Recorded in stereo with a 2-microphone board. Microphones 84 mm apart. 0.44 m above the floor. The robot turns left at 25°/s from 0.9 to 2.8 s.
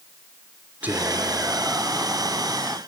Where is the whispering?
20° right (ahead or behind), 0.8 m; by 2.8 s 5° right (ahead or behind), 0.8 m.